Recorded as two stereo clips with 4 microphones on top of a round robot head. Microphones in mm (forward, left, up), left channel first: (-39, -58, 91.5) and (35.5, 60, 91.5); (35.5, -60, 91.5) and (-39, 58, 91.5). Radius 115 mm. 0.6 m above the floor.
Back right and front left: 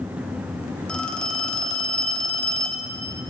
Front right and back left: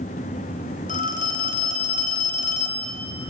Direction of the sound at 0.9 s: 40° right.